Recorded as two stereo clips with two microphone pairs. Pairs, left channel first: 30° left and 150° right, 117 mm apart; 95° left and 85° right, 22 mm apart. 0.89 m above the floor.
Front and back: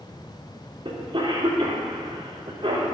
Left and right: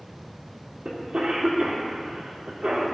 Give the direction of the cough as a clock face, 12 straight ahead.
4 o'clock.